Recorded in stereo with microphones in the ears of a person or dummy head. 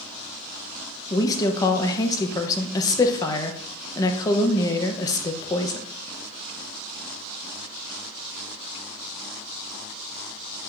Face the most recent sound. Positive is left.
turn(degrees=20)  # may be behind; listen again after turning